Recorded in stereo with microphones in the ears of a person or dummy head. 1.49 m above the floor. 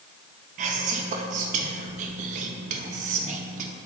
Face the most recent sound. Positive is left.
turn(degrees=-50)  # may be behind; listen again after turning